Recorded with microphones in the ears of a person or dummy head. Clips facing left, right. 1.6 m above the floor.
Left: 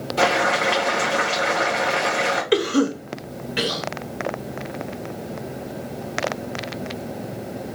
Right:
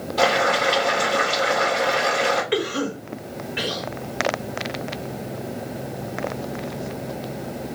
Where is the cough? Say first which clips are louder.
Left 5 dB; 65° left (ahead or behind), 0.9 m.